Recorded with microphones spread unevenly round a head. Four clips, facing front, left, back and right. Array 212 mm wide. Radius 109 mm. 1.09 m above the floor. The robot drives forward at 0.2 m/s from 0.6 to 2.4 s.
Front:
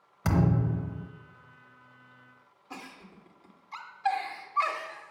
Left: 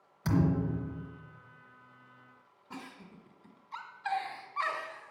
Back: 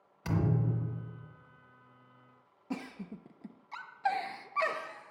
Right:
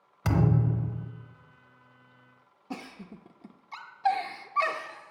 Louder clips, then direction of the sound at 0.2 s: Right 2 dB, front 5 dB; 35° right.